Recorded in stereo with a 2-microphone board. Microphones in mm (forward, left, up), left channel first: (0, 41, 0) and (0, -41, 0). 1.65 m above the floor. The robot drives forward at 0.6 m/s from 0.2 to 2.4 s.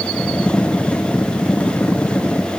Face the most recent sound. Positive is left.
No sound to turn to.